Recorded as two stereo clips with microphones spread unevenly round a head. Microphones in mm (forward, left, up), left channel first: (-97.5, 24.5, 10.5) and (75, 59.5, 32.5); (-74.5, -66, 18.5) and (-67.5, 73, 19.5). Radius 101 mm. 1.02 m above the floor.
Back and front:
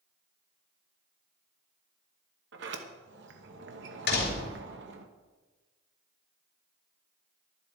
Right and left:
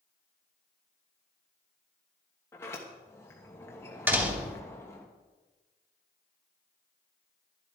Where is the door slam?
165° left, 3 m.